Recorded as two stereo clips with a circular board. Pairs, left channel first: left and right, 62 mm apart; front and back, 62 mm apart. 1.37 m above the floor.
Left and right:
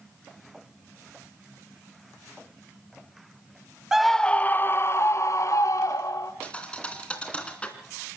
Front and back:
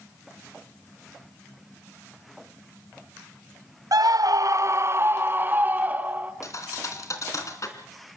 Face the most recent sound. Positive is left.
turn(degrees=20)